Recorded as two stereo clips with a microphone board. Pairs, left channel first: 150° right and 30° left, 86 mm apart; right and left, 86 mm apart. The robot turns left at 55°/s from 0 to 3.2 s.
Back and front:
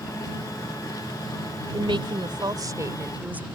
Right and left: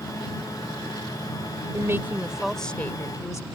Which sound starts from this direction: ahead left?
A woman speaking, at 1.7 s.